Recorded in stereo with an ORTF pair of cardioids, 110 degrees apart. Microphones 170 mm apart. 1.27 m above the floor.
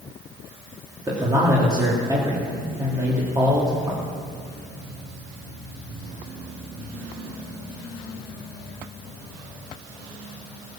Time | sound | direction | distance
1.1 | a man speaking | 20° right | 3 m